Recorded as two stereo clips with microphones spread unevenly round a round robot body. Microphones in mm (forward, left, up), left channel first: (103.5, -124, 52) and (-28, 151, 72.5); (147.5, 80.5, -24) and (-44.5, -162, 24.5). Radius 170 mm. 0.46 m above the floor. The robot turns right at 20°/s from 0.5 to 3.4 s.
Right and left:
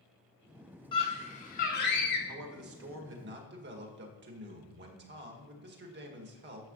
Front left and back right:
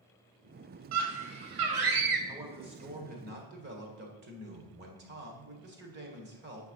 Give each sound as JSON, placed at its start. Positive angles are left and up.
{"t": 0.9, "sound": "a scream", "azimuth_deg": -135, "distance_m": 3.0}
{"t": 2.3, "sound": "a man speaking", "azimuth_deg": 145, "distance_m": 1.9}